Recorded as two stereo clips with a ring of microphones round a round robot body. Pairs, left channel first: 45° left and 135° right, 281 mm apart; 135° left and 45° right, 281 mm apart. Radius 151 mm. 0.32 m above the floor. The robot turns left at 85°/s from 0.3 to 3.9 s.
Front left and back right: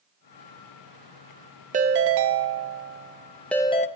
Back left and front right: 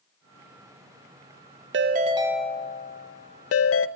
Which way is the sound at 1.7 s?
80° right.